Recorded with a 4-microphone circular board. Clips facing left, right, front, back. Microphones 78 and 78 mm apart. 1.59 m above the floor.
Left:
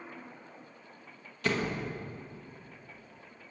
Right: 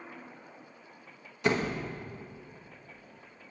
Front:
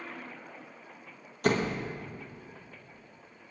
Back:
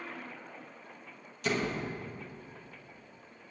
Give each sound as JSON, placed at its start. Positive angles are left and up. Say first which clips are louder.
{"t": 1.4, "sound": "a door slam", "louder": "right 3 dB, front 4 dB", "azimuth_deg": -25, "distance_m": 1.2}